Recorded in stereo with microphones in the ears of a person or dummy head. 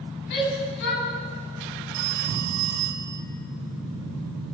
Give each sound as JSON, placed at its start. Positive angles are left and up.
{"t": 0.3, "sound": "a shout", "side_deg": 65, "distance_m": 9.5}
{"t": 1.9, "sound": "a phone ringing", "side_deg": -55, "distance_m": 2.0}